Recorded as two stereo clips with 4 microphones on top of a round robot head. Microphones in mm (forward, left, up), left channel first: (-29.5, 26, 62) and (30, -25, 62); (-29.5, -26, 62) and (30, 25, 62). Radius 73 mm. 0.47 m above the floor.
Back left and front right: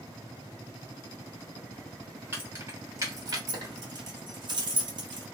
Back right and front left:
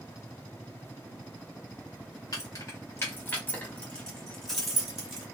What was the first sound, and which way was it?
Keys jangling, 100° right.